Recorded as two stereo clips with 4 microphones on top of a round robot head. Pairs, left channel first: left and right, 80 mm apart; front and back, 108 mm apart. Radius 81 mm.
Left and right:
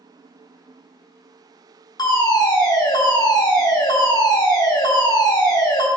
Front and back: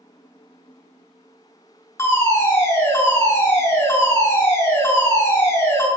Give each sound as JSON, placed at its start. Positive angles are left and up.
{"t": 2.0, "sound": "a fire alarm", "azimuth_deg": 65, "distance_m": 4.5}